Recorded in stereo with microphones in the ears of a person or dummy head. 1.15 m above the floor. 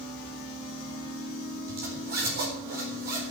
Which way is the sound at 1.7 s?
55° right (ahead or behind).